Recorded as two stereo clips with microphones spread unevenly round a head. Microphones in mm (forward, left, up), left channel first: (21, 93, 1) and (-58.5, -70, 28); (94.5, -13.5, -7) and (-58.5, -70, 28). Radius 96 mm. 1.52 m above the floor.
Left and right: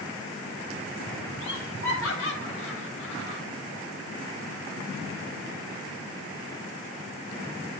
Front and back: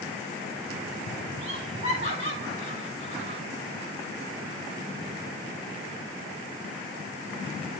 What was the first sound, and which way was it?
Laughter, 80° left.